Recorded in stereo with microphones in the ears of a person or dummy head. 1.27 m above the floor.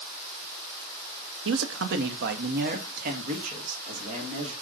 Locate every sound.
1.4 s a man speaking: 60° right (ahead or behind), 0.6 m; by 4.5 s 50° right (ahead or behind), 2 m